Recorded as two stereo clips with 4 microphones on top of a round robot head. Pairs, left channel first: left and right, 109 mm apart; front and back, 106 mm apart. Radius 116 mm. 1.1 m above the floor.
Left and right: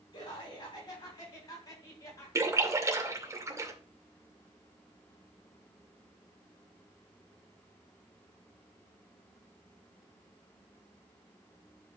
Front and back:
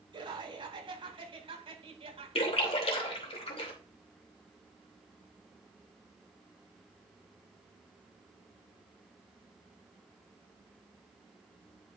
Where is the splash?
30° right, 2.5 m.